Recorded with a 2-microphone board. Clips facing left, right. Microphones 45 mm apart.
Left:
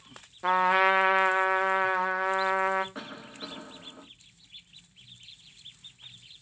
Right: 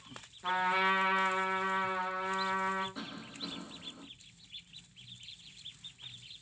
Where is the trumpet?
75° left (ahead or behind), 0.5 m.